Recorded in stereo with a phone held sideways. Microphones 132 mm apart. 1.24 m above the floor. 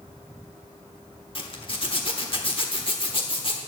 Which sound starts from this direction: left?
A zipper, at 1.4 s.